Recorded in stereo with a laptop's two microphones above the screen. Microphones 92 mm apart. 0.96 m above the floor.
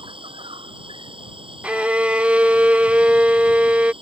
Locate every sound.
0.0 s an insect: 75° right (ahead or behind)
1.6 s a violin: 15° right (ahead or behind)